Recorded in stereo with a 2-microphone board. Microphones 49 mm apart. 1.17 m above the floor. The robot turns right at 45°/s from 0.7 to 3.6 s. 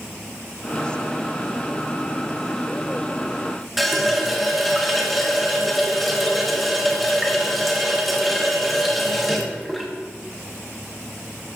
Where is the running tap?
Centre (ahead or behind), 0.8 m.